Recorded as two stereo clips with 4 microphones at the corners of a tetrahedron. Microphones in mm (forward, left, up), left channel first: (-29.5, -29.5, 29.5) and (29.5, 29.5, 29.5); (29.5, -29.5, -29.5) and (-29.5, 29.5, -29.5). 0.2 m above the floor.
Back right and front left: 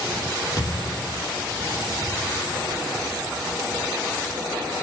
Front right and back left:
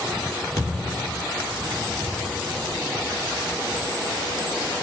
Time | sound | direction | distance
0.6 | a thud | 90° right | 3.5 m